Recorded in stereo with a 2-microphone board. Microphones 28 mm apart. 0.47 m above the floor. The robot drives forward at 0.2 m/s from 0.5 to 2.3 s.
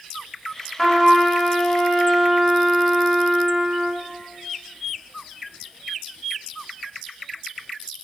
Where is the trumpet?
20° left (ahead or behind), 0.7 m; by 4.1 s 15° left (ahead or behind), 1.0 m.